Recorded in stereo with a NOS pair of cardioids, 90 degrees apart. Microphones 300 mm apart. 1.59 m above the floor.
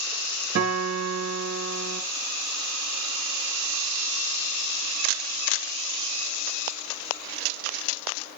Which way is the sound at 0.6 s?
55° right.